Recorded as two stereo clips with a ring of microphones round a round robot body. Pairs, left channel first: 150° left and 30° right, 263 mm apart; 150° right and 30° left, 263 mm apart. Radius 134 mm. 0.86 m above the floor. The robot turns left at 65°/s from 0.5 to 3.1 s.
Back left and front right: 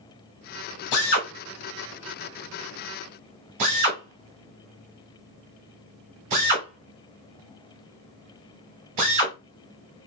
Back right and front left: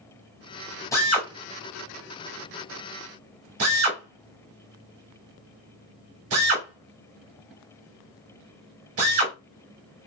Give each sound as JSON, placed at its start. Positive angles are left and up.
{"t": 0.9, "sound": "a drill", "azimuth_deg": 130, "distance_m": 1.5}